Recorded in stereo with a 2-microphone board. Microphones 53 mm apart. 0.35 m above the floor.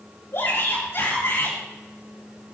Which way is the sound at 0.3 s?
60° left (ahead or behind).